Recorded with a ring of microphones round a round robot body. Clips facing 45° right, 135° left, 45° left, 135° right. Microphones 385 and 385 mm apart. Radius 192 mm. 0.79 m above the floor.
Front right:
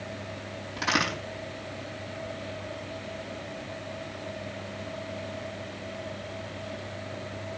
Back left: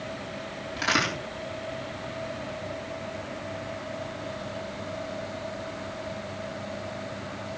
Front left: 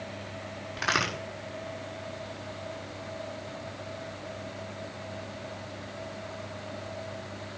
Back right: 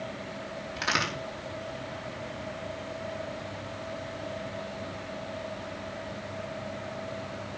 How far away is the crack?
About 5.5 m.